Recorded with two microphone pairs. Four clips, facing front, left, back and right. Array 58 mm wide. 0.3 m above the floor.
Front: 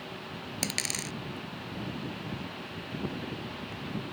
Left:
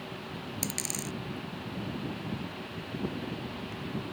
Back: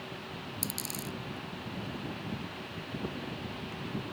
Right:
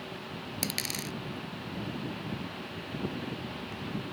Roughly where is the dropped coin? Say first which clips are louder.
Right 3 dB, front 7 dB; ahead.